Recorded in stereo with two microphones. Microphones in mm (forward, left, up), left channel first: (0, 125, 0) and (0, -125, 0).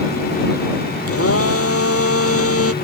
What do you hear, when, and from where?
1.1 s a blender: 65° left (ahead or behind)